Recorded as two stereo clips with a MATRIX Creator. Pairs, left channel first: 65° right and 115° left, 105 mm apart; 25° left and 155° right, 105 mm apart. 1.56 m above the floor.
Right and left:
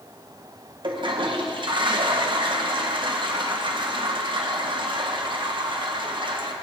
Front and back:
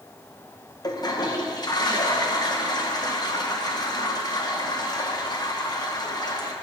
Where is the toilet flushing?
75° left, 1.4 m.